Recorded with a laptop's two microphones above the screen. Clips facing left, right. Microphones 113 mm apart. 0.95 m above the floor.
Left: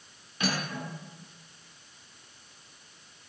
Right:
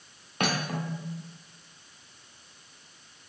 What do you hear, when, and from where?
0.4 s cutlery clinking: 60° right (ahead or behind), 1.4 m